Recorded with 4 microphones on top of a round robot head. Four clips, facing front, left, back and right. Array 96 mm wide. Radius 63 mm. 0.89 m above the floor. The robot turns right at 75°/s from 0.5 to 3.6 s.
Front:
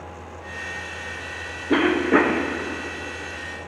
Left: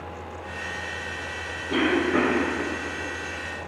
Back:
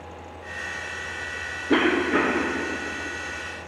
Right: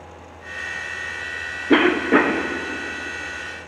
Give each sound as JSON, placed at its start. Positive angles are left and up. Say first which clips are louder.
{"t": 1.7, "sound": "a cough", "louder": "right 6 dB, front 3 dB", "azimuth_deg": -90, "distance_m": 0.6}